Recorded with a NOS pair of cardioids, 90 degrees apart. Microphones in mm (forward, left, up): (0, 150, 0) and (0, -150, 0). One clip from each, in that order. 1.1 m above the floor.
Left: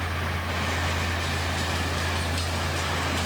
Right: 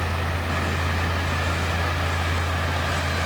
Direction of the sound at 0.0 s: 30° right.